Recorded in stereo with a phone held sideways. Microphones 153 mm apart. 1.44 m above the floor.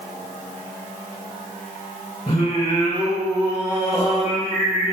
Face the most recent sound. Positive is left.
turn(degrees=45)  # may be behind; listen again after turning